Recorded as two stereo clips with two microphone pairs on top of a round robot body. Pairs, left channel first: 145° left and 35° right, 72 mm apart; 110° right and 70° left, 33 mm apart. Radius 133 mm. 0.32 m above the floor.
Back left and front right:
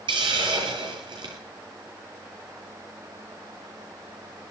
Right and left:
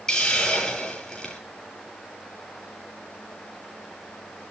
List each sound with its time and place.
0.1 s a hiss: 35° right, 9 m